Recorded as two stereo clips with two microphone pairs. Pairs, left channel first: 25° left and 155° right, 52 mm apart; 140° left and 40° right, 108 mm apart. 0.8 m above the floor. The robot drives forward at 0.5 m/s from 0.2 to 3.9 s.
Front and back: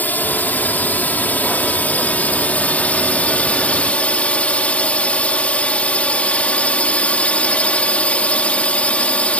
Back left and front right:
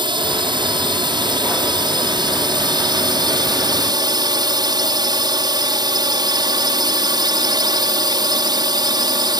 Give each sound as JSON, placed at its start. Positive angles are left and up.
{"t": 0.0, "sound": "a drone", "azimuth_deg": -20}